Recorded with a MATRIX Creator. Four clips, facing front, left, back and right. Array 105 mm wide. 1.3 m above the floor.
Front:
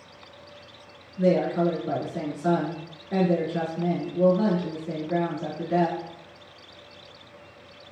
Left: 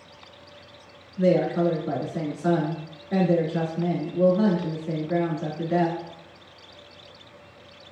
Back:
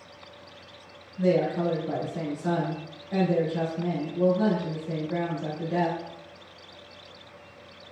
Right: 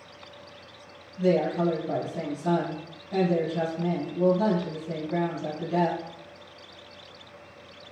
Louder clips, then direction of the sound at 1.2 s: Left 3 dB, front 2 dB; 65° left.